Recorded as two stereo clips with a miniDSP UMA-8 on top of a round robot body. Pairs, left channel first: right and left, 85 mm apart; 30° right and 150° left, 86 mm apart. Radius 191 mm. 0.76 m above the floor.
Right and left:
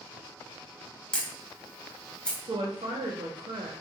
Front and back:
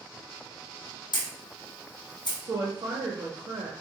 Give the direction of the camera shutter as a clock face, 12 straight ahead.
12 o'clock.